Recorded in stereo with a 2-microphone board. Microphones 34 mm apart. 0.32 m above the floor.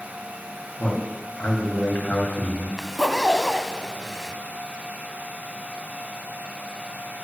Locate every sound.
0.8 s a man speaking: 50° left (ahead or behind), 2 m; by 2.7 s 45° left (ahead or behind), 2 m
2.8 s a zipper: 5° left (ahead or behind), 0.6 m